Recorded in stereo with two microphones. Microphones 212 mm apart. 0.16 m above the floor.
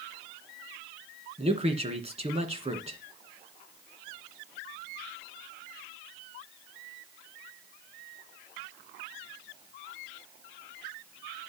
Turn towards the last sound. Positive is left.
turn(degrees=-30)  # may be behind; listen again after turning